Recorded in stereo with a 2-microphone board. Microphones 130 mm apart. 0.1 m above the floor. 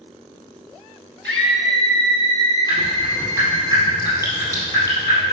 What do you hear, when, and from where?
1.2 s a scream: 10° left (ahead or behind), 1.8 m; by 3.7 s centre (ahead or behind), 1.9 m
2.7 s dripping: 25° left (ahead or behind), 2.5 m